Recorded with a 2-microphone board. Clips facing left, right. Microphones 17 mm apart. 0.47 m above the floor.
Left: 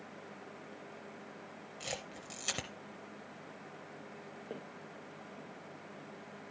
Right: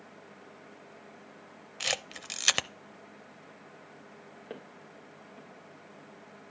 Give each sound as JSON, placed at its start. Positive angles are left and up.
{"t": 1.8, "sound": "a camera shutter", "side_deg": -80, "distance_m": 0.6}
{"t": 4.5, "sound": "footsteps", "side_deg": -30, "distance_m": 3.0}